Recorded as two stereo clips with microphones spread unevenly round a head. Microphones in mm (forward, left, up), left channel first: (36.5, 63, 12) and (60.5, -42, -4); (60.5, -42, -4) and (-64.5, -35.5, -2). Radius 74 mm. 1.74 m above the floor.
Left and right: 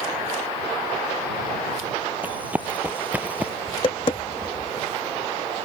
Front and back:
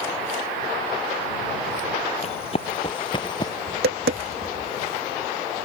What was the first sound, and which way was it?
Running footsteps, straight ahead.